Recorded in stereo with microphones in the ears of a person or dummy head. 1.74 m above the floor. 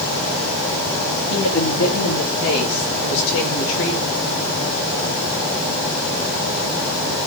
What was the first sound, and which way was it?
A woman speaking, 85° left.